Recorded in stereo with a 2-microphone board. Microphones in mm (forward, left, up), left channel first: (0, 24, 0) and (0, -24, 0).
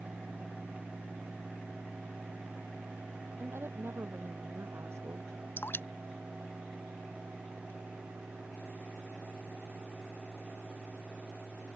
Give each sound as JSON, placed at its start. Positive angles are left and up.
{"t": 3.4, "sound": "a woman speaking", "side_deg": -60}
{"t": 5.6, "sound": "dripping", "side_deg": 50}